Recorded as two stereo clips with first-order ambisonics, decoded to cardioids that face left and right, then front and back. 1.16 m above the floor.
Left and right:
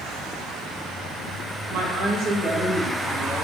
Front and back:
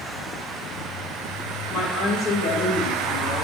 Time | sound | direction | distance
1.7 | a woman speaking | 55° right | 1.5 m